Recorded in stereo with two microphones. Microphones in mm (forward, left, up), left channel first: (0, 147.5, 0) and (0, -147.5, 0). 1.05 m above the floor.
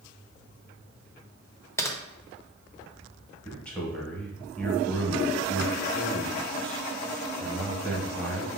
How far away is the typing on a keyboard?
About 0.5 m.